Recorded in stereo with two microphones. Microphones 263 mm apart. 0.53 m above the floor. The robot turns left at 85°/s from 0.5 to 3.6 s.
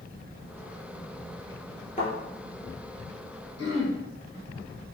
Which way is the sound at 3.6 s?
70° left (ahead or behind).